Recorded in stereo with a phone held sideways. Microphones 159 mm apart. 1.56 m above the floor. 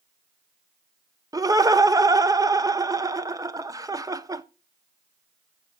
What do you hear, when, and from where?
1.3 s laughter: 20° right (ahead or behind), 0.6 m